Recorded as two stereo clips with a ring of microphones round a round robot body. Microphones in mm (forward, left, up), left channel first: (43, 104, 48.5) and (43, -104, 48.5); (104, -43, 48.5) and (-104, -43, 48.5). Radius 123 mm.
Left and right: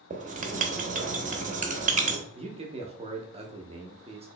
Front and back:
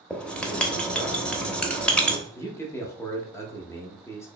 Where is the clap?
I don't hear a clap.